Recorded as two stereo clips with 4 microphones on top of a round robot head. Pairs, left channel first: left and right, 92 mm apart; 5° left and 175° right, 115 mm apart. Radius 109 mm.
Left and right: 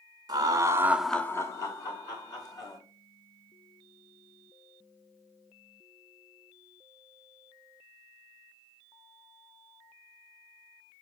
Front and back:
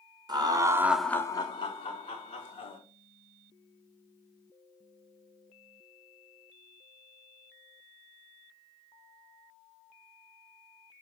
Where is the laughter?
130° right, 0.9 m; by 2.8 s 45° left, 2.0 m.